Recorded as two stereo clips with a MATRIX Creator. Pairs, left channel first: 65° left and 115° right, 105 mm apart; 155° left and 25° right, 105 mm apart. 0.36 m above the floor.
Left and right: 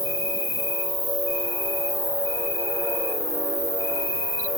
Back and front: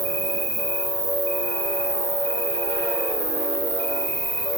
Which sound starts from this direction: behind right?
An insect, at 0.0 s.